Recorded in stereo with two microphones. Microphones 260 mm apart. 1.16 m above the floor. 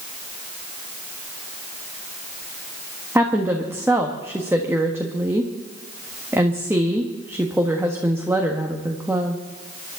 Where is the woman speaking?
10° right (ahead or behind), 1.5 m.